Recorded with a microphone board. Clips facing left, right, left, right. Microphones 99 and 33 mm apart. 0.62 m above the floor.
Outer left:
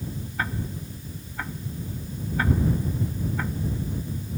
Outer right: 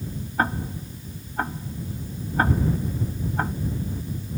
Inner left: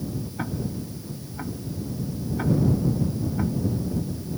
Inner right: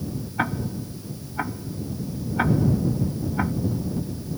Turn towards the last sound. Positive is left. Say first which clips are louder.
# outer right 6 dB, inner right 6 dB
turn(degrees=-35)  # may be behind; listen again after turning